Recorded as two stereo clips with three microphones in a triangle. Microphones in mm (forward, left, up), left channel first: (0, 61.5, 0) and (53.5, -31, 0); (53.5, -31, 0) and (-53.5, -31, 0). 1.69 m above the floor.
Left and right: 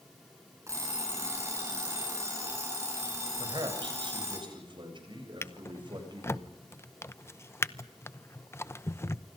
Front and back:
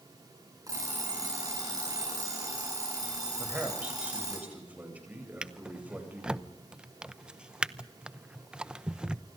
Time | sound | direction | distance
0.7 | an alarm clock | 125° right | 8 m
3.4 | a man speaking | 105° right | 8 m
5.4 | a drawer | 110° left | 0.8 m